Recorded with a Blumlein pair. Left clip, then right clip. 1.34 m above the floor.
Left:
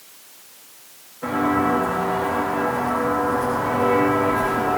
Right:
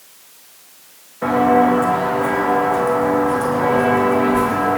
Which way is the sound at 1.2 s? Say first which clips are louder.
Right 7 dB; 50° right.